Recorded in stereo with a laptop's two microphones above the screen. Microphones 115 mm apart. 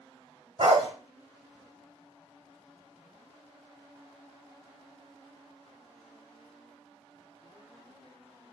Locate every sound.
0.6 s a dog barking: 60° right (ahead or behind), 1.1 m